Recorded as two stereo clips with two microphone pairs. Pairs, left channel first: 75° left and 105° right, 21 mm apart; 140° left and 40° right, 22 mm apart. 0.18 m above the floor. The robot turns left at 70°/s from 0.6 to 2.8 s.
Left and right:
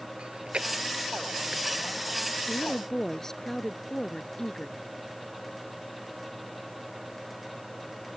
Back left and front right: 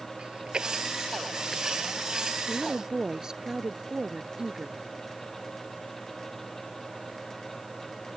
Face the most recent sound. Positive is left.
turn(degrees=15)